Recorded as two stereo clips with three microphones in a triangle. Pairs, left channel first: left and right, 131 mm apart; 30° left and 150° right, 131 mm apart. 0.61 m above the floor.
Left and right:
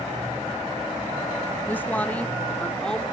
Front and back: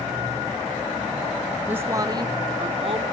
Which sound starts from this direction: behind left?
A woman speaking, at 1.7 s.